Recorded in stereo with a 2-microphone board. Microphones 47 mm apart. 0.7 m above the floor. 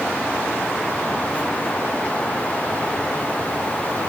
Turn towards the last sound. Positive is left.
No sound to turn to.